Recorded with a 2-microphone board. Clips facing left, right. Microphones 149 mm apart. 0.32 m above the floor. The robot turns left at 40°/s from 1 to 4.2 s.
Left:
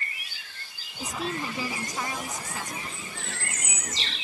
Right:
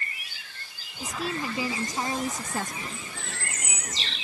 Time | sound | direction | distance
1.0 | a woman speaking | 5° left | ?